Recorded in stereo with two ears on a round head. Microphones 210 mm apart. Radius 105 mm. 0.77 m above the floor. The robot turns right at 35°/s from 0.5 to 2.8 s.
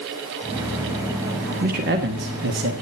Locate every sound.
1.6 s a man speaking: 130° right, 1.3 m; by 2.7 s 90° right, 1.3 m